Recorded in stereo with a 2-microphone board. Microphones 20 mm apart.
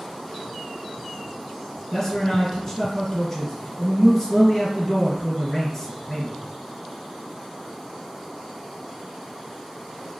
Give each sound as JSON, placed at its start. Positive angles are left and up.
{"t": 1.9, "sound": "a man speaking", "side_deg": 15, "distance_m": 1.6}